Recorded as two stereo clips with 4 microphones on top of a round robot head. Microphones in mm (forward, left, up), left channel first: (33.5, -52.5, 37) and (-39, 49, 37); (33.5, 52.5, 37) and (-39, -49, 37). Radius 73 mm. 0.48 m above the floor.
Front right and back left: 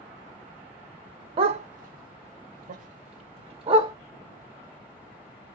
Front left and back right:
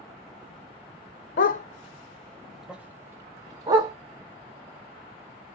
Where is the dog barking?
75° left, 0.6 m; by 3.9 s 175° left, 1.3 m.